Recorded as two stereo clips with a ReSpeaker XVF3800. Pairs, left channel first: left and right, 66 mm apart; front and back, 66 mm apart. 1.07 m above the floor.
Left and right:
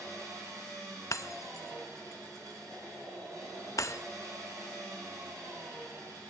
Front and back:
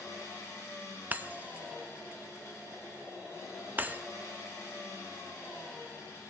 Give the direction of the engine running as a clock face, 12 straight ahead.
2 o'clock.